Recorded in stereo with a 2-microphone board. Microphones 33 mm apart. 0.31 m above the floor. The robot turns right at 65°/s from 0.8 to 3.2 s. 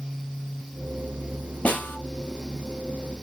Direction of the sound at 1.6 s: 60° left (ahead or behind).